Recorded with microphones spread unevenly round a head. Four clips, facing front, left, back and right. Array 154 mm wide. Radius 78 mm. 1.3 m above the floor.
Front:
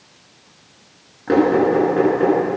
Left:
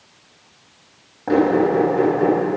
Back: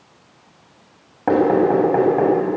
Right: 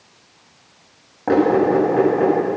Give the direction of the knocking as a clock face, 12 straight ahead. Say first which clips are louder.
Right 1 dB, even; 5 o'clock.